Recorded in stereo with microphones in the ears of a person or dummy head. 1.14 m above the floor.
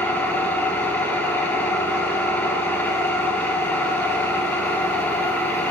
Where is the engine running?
10° left (ahead or behind), 1.0 m.